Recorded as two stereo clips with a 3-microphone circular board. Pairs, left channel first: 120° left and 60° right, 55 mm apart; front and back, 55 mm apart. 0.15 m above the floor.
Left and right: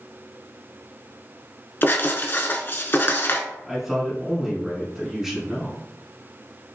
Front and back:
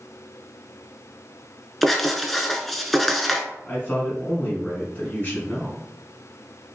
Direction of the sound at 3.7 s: 10° left.